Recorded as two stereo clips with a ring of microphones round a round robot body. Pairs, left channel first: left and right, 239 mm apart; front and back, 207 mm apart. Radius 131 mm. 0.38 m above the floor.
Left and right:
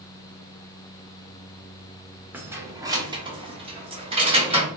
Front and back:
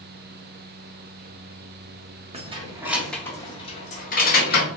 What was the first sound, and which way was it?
Keys jangling, 165° right.